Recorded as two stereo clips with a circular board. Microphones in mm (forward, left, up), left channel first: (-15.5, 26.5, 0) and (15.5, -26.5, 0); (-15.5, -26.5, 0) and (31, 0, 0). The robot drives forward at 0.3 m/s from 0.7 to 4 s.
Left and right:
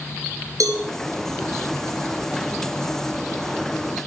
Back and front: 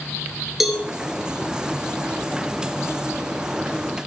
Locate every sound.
0.6 s a cowbell: 55° right, 2.5 m